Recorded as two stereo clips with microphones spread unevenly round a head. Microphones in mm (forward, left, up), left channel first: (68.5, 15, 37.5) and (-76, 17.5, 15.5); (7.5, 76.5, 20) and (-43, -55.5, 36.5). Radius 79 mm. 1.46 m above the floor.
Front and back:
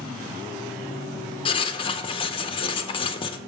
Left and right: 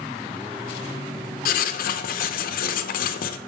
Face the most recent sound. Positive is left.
turn(degrees=55)